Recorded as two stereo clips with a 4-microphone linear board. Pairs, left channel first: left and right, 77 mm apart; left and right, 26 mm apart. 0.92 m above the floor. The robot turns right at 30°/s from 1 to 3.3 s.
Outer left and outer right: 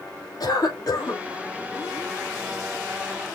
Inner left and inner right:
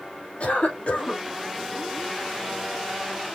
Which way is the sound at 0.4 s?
60° left (ahead or behind).